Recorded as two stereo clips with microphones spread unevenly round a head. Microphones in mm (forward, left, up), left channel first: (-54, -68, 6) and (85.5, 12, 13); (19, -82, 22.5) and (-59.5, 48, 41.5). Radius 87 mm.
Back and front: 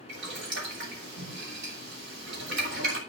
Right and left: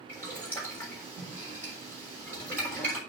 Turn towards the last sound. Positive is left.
turn(degrees=20)